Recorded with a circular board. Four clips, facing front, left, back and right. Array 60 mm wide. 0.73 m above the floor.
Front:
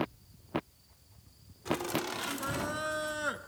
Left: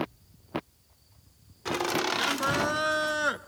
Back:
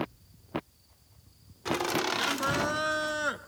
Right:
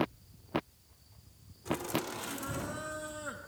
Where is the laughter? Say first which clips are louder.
Left 7 dB, back 4 dB; 125° left, 1.8 m; by 3.4 s 100° left, 0.7 m.